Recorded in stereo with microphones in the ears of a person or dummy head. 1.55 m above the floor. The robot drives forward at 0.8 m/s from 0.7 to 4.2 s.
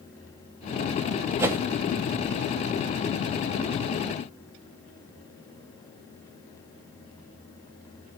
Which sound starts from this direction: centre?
A whoosh, at 1.4 s.